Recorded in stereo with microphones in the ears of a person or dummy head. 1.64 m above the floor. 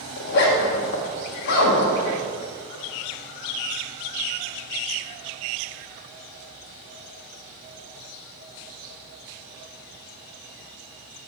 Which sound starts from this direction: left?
A zipper, at 0.2 s.